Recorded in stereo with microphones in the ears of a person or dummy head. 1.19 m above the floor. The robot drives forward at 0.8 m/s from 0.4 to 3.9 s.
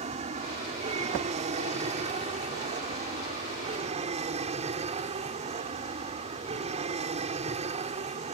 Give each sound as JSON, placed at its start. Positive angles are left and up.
{"t": 0.0, "sound": "an aircraft", "side_deg": -30}